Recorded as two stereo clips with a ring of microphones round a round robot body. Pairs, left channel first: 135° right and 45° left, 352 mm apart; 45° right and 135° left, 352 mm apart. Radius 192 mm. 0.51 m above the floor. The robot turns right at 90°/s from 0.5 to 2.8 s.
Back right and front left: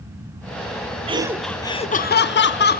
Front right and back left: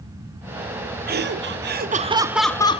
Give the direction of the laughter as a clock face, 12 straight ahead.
9 o'clock.